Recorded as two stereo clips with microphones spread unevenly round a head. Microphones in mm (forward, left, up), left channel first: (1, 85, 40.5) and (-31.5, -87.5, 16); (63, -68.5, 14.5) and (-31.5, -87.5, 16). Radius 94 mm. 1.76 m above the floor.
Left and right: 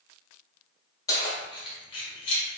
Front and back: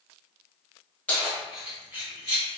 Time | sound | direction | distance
1.1 | keys jangling | 70° left | 0.7 m